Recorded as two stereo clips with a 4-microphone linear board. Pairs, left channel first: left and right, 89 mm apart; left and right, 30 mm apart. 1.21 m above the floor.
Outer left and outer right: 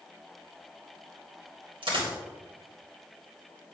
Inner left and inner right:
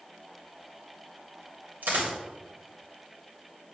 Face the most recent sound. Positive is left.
turn(degrees=-80)